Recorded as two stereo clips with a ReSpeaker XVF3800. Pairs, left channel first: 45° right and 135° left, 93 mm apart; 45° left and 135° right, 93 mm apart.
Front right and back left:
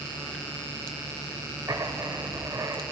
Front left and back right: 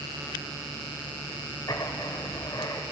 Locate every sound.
1.7 s writing: 85° left, 0.7 m